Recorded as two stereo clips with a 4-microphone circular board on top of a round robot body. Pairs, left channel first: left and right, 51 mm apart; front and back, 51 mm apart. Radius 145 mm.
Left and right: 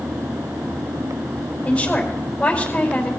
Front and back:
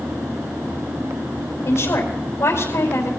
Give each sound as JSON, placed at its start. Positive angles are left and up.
{"t": 1.6, "sound": "a woman speaking", "azimuth_deg": 30, "distance_m": 4.5}